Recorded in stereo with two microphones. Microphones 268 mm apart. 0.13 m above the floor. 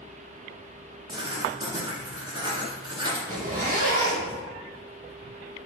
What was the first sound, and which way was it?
Writing, 15° right (ahead or behind).